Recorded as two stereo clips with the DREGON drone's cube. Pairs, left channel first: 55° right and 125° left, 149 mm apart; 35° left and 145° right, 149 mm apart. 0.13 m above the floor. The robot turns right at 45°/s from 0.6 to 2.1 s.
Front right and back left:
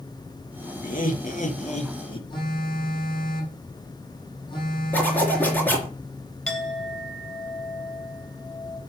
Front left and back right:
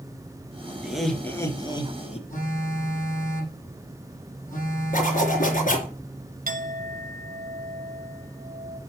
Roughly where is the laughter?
Ahead right.